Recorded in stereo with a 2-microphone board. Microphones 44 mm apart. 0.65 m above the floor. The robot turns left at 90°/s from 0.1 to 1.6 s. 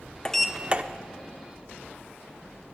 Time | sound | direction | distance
0.2 | a sliding door | 20° left | 0.6 m